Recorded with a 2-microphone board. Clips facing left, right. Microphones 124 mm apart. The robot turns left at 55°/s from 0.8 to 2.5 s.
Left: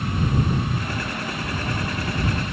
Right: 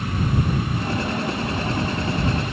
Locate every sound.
Only background noise.